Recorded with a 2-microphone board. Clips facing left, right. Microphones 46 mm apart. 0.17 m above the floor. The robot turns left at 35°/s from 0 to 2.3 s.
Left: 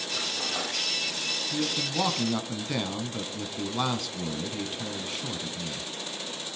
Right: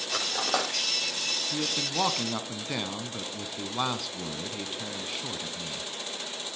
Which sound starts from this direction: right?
Cutlery clinking, at 0.1 s.